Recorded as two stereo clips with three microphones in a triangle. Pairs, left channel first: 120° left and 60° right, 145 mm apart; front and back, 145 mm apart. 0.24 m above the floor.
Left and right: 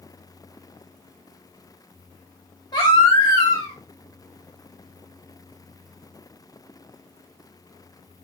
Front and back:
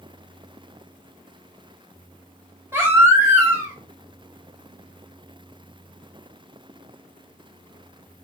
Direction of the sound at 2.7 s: 130° left.